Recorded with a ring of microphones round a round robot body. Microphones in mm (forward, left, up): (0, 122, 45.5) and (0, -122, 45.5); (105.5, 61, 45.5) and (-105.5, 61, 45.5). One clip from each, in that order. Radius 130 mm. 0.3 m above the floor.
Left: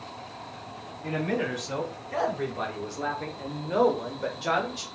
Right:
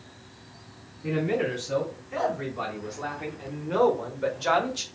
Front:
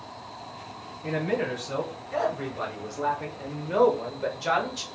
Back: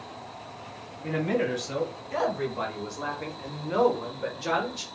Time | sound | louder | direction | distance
1.0 | a man speaking | right 2 dB, even | 130° left | 1.7 m